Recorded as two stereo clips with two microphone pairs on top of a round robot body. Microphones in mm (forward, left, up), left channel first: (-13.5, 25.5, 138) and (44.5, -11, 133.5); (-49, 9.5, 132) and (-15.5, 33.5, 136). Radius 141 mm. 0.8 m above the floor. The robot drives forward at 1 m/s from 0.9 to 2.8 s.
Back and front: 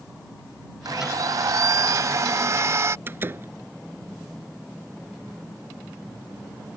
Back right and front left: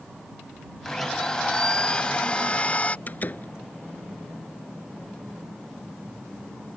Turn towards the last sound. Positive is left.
turn(degrees=-90)